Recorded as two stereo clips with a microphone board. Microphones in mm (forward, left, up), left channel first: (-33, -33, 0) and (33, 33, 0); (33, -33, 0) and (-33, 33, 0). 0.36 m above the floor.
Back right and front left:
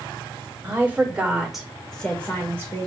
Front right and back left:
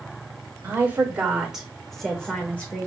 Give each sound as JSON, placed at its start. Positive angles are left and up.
{"t": 0.6, "sound": "a woman speaking", "azimuth_deg": 90, "distance_m": 1.3}